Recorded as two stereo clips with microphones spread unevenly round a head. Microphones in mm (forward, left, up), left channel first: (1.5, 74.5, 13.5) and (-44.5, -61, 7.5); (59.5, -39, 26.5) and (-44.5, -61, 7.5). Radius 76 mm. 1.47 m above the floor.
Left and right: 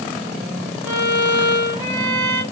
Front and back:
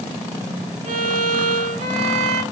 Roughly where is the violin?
Behind.